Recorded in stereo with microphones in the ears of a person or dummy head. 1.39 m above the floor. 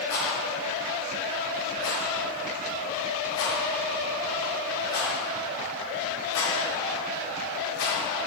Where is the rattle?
75° left (ahead or behind), 2.5 m.